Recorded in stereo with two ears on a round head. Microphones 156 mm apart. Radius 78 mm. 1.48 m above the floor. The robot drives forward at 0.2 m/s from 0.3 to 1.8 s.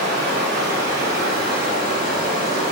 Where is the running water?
65° right (ahead or behind), 1.1 m; by 2.7 s 55° right (ahead or behind), 1.2 m.